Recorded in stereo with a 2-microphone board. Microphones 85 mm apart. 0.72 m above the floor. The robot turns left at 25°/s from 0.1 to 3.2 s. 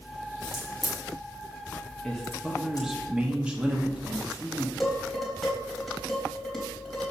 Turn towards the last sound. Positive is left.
turn(degrees=0)  # may be behind; listen again after turning